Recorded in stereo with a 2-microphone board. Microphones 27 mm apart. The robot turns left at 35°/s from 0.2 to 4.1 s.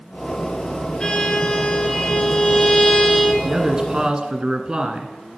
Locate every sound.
1.0 s a violin: 115° left, 1.5 m; by 3.3 s 35° left, 1.5 m
3.4 s a man speaking: 30° right (ahead or behind), 1.3 m